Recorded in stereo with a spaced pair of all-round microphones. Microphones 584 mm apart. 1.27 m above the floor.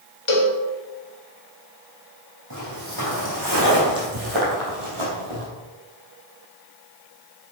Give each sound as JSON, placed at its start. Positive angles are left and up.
{"t": 0.3, "sound": "a cowbell", "side_deg": 60, "distance_m": 1.2}
{"t": 2.5, "sound": "footsteps", "side_deg": -35, "distance_m": 3.5}